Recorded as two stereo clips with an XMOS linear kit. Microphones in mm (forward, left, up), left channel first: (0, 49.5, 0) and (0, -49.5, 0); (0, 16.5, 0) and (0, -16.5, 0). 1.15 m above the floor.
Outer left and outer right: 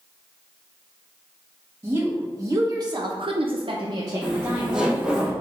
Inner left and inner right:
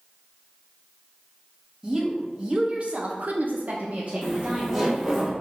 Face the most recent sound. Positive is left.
turn(degrees=-10)  # may be behind; listen again after turning